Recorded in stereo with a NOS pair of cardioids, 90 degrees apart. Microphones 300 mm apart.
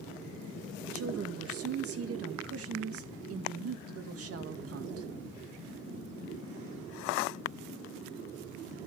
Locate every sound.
0.8 s a woman speaking: 50° right, 1.9 m